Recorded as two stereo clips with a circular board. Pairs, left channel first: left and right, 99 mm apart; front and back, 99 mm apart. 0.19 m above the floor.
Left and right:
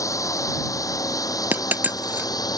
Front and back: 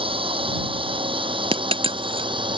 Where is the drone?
150° left; by 2.6 s 145° left.